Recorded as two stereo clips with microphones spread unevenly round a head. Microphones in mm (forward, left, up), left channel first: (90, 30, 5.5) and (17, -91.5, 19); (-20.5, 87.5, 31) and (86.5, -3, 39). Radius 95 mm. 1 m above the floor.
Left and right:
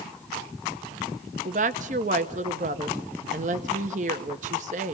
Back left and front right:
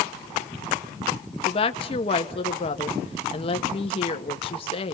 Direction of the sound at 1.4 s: 170° right.